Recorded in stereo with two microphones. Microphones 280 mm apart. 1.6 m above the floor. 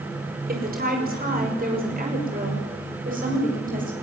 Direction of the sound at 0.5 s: 35° right (ahead or behind).